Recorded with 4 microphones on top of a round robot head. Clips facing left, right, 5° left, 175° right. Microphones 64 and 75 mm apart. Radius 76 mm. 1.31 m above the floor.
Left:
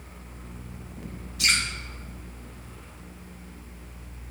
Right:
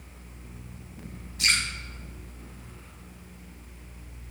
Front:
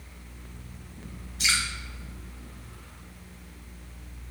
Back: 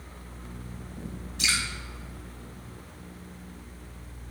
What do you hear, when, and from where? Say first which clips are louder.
1.4 s dripping: left 1 dB, front 1 dB; 155° right, 1.9 m